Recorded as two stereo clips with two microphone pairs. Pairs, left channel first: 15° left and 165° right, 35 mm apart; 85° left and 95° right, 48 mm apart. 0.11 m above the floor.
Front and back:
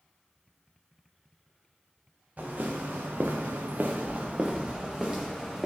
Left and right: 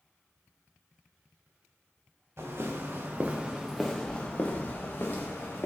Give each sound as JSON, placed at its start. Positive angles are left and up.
{"t": 2.4, "sound": "footsteps", "azimuth_deg": -120, "distance_m": 0.9}